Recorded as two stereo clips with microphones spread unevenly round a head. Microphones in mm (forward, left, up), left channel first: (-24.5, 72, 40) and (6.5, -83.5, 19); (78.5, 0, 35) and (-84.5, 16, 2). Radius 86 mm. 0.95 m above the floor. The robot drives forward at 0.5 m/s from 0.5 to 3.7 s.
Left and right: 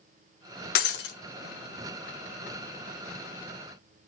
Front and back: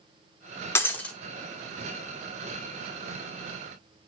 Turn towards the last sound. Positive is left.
turn(degrees=135)